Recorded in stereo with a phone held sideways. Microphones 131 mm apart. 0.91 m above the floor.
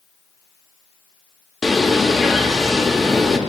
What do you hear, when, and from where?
1.6 s a bird: centre (ahead or behind), 0.6 m